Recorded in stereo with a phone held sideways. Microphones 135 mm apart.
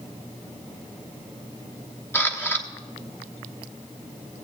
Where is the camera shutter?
15° left (ahead or behind), 1.2 m.